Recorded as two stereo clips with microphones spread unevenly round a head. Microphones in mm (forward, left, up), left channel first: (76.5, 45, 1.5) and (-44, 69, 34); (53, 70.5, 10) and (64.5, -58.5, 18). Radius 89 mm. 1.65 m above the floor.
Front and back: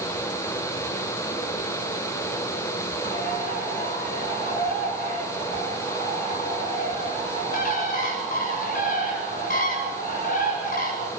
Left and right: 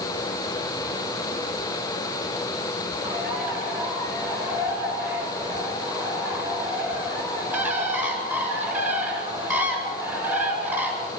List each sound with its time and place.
3.0 s a bird: 10° right, 8 m